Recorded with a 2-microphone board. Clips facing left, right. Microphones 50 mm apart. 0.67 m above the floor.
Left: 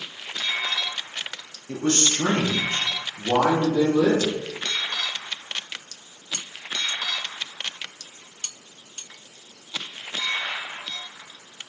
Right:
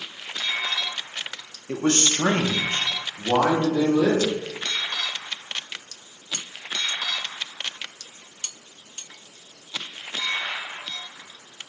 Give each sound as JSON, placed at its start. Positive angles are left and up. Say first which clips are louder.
{"t": 1.7, "sound": "a man speaking", "louder": "right 1 dB", "side_deg": -40, "distance_m": 0.9}